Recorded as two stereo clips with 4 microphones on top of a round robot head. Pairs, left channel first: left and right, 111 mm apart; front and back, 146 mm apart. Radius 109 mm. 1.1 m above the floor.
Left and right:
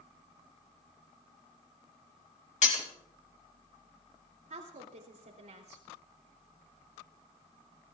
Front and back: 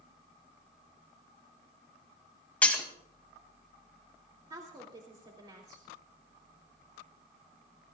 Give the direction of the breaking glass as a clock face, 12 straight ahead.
9 o'clock.